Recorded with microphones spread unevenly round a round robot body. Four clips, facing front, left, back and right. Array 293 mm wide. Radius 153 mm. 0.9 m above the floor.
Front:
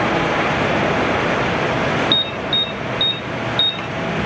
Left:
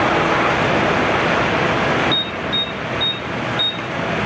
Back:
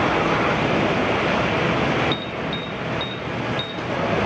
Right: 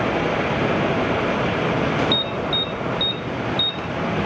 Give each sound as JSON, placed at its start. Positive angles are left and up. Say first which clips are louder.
{"t": 2.1, "sound": "an alarm", "louder": "even, front 3 dB", "azimuth_deg": 40, "distance_m": 1.4}